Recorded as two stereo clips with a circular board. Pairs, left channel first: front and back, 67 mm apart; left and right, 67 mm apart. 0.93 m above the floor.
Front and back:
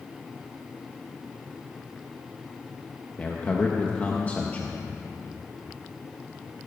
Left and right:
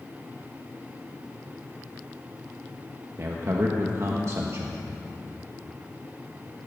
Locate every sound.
3.2 s a man speaking: 60° right, 1.2 m